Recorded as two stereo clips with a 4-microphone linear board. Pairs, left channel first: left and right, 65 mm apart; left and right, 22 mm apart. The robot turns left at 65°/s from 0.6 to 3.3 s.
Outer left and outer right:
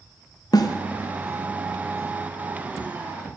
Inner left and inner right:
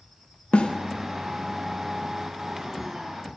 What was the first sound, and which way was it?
A snare drum, 70° left (ahead or behind).